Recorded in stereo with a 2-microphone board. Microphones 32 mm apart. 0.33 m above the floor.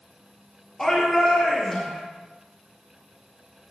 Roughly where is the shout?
Centre.